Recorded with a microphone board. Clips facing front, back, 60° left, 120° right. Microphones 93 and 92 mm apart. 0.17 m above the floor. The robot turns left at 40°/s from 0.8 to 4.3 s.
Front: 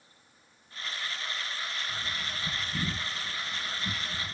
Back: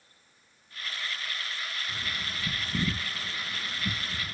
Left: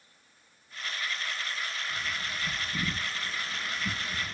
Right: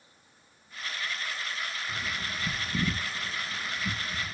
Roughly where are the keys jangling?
I don't hear keys jangling.